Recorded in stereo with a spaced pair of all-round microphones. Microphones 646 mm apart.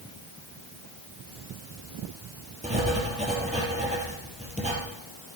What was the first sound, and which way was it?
Writing, 10° right (ahead or behind).